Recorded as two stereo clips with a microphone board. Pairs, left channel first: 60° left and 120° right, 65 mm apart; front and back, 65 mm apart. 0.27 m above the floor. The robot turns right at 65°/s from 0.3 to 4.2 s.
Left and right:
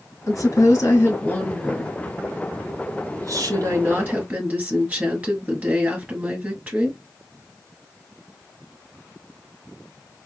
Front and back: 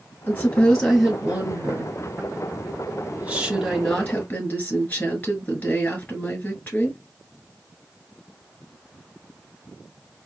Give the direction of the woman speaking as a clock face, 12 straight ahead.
10 o'clock.